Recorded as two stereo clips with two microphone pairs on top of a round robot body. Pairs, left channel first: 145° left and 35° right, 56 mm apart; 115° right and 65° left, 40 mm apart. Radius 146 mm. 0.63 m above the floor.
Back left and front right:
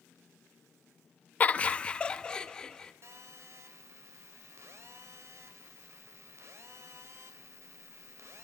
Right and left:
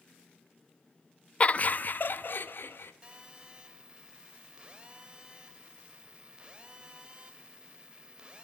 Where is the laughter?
155° right, 0.9 m; by 2.9 s 135° right, 2.5 m.